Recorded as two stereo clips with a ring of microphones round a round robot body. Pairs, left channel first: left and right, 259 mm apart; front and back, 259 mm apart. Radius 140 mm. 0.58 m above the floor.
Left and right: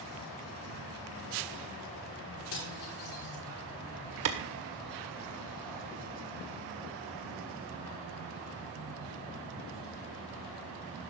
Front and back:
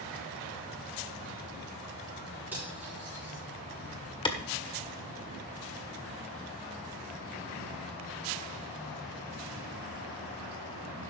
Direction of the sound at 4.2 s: 70° right.